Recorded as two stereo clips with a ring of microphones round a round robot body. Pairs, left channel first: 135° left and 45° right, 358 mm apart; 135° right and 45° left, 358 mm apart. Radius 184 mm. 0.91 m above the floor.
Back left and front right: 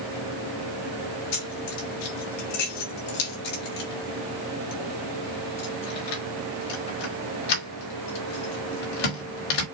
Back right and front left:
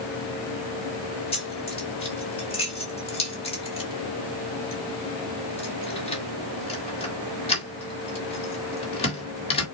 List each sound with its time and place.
1.3 s keys jangling: 150° left, 2 m